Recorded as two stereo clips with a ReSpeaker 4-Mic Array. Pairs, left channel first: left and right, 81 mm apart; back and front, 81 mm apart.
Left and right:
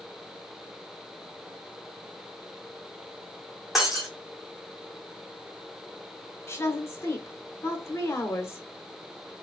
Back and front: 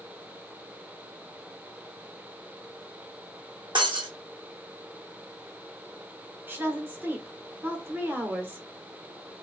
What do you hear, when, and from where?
3.8 s breaking glass: straight ahead, 1.6 m
6.5 s a woman speaking: 55° left, 1.0 m